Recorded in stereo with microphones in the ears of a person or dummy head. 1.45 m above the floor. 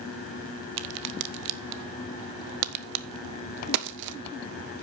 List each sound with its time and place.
0.8 s a crack: 55° right (ahead or behind), 0.6 m